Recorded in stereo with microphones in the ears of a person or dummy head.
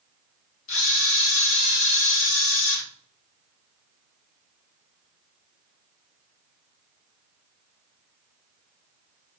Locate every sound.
0.7 s a camera shutter: 70° left (ahead or behind), 1.1 m